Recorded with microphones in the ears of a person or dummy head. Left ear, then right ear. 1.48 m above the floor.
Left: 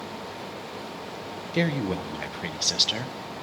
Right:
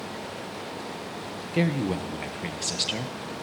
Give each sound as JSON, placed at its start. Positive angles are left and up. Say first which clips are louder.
{"t": 1.5, "sound": "a woman speaking", "louder": "even", "side_deg": 20, "distance_m": 0.9}